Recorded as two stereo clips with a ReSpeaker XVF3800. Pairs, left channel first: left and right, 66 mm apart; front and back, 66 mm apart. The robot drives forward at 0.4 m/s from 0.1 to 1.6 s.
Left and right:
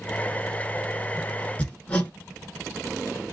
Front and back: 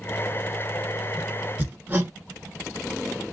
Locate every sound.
1.6 s hammering: 140° left, 1.0 m